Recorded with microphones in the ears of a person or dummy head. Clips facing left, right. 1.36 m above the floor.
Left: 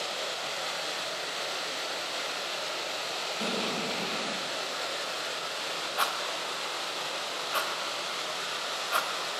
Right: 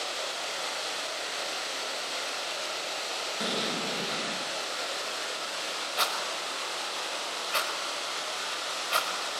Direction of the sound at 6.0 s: 20° right (ahead or behind).